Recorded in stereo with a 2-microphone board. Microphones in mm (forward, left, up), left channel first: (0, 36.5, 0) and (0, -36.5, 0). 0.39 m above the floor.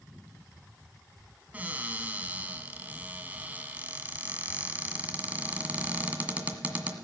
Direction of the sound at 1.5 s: 20° right (ahead or behind).